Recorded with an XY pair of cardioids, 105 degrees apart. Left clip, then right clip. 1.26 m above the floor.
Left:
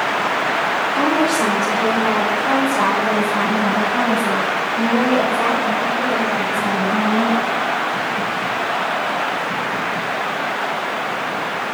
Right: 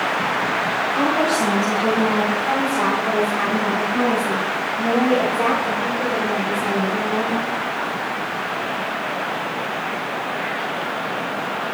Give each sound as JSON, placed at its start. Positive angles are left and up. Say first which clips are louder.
{"t": 0.9, "sound": "a woman speaking", "louder": "left 1 dB", "azimuth_deg": 25, "distance_m": 4.0}